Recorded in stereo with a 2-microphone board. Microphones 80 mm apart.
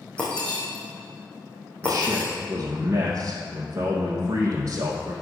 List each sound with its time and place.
0.2 s breaking glass: 15° left (ahead or behind), 3 m
1.8 s a man speaking: 35° right (ahead or behind), 2.5 m